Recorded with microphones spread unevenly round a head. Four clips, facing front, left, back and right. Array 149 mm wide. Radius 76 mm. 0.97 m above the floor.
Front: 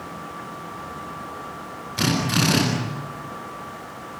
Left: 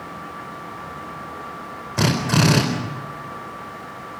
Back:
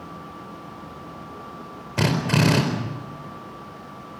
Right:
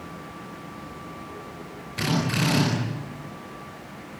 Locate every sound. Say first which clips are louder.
2.0 s a drill: left 6 dB, back 1 dB; 135° left, 4.5 m